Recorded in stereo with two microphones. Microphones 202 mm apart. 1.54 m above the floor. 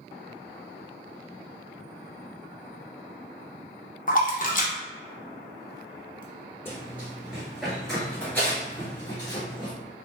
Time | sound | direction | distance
4.1 | a splash | 40° left (ahead or behind) | 0.6 m
6.7 | running footsteps | 10° right (ahead or behind) | 1.8 m